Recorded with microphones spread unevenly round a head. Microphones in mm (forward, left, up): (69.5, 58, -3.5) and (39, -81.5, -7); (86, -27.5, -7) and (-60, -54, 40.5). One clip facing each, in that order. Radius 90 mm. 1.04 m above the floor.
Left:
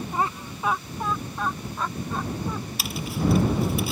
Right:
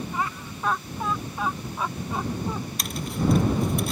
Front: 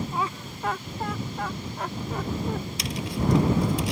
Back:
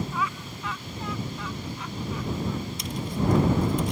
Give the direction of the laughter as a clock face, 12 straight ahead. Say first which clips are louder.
Left 3 dB, front 1 dB; 11 o'clock.